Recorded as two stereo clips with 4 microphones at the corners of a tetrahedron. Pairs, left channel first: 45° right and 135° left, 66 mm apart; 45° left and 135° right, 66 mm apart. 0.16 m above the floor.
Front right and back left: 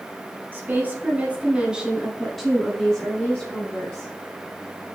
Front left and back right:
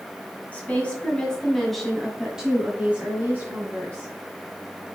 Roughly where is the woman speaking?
Left.